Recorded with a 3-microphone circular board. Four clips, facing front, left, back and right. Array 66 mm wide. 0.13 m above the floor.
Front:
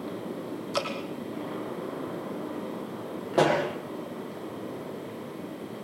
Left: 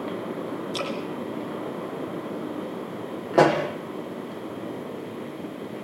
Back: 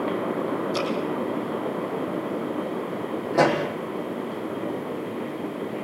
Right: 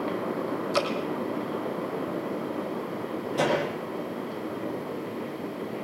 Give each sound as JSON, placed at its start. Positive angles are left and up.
{"t": 0.7, "sound": "dripping", "azimuth_deg": -70, "distance_m": 4.5}
{"t": 3.3, "sound": "a pop", "azimuth_deg": 80, "distance_m": 6.0}